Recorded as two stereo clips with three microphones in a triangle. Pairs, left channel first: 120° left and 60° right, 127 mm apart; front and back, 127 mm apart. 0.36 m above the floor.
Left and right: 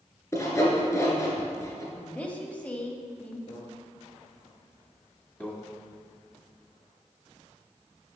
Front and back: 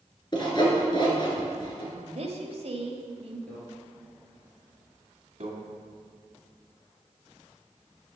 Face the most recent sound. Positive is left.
turn(degrees=-165)